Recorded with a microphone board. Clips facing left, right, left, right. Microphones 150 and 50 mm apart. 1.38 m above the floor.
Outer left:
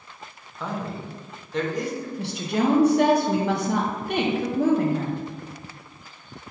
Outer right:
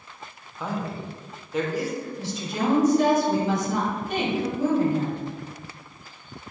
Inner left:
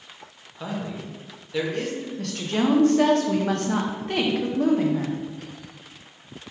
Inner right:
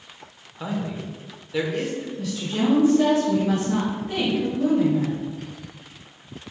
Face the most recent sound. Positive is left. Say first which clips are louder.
# outer left 6 dB, inner left 1 dB
turn(degrees=65)  # may be behind; listen again after turning